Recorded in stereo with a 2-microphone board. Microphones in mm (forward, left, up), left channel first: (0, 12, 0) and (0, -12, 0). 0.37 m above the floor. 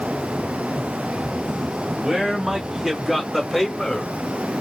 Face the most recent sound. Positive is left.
turn(degrees=15)  # may be behind; listen again after turning